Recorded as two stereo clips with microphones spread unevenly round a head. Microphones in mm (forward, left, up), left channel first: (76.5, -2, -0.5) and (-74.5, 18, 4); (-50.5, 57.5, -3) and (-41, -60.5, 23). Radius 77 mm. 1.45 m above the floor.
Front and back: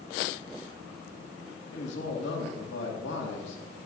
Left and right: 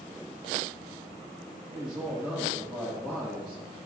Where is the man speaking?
Straight ahead, 2 m.